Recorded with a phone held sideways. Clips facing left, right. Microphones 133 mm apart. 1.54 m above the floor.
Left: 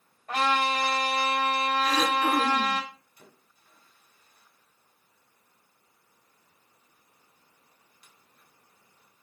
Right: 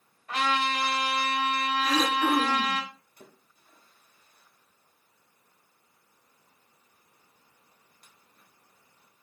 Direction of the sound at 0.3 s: 45° left (ahead or behind).